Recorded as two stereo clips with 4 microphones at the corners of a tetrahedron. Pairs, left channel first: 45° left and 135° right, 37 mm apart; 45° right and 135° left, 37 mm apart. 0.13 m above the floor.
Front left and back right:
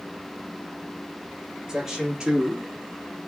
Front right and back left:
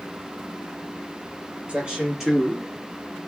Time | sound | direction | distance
1.7 | a man speaking | 155° left | 1.6 m